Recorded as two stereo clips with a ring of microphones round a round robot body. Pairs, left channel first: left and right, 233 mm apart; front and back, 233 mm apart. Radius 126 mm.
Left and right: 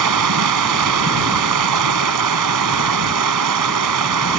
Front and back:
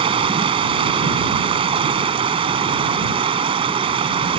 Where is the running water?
110° right.